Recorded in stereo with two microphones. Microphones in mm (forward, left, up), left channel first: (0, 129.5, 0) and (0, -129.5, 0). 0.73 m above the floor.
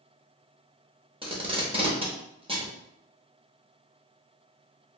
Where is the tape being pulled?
20° right (ahead or behind), 0.6 m.